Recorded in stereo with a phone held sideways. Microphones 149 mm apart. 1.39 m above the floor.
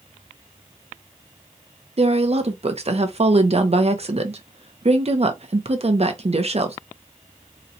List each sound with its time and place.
2.0 s a woman speaking: 45° right (ahead or behind), 0.6 m